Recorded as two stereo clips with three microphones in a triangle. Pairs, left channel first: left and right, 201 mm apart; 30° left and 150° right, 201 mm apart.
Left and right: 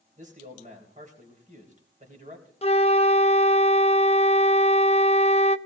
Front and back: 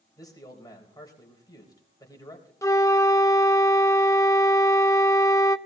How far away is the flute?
About 0.5 m.